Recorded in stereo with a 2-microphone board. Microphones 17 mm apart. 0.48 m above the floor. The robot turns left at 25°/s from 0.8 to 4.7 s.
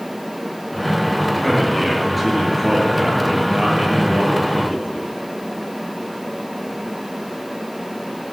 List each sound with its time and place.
1.4 s a man speaking: 30° left, 7.5 m; by 5.1 s 55° right, 7.5 m